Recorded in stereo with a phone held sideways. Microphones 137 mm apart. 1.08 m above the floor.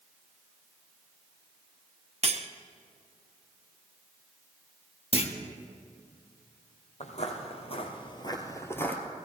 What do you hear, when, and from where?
2.2 s cutlery clinking: 50° right (ahead or behind), 0.6 m
5.1 s a clunk: 45° left (ahead or behind), 1.0 m
7.0 s footsteps: 55° left (ahead or behind), 1.8 m; by 9.0 s 10° left (ahead or behind), 1.5 m